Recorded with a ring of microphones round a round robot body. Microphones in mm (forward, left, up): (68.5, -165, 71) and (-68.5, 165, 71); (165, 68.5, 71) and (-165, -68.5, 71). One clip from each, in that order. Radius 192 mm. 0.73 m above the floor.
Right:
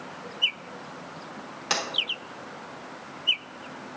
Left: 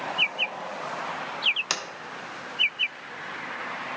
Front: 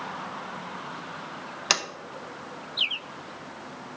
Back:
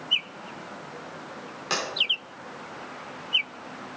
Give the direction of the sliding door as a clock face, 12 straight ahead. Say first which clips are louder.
Right 2 dB, front 4 dB; 10 o'clock.